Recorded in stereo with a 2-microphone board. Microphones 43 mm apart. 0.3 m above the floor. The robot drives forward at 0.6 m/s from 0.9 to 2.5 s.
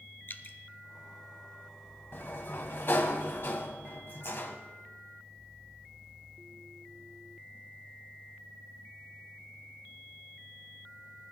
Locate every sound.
0.3 s dripping: 55° left (ahead or behind), 0.8 m
2.1 s a sliding door: 60° left (ahead or behind), 1.4 m; by 4.6 s 55° left (ahead or behind), 1.4 m